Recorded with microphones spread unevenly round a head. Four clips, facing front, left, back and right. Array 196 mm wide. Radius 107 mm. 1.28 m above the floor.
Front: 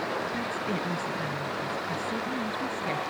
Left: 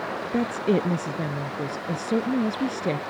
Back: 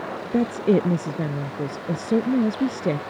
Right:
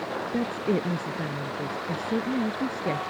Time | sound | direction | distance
0.3 | a woman speaking | 175° left | ?